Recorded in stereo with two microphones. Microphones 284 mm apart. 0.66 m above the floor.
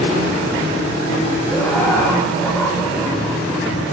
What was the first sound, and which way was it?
Laughter, 5° left (ahead or behind).